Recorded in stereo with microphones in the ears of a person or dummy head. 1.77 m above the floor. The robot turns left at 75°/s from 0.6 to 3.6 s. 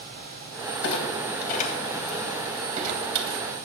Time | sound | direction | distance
0.8 | a clunk | 75° left (ahead or behind) | 2 m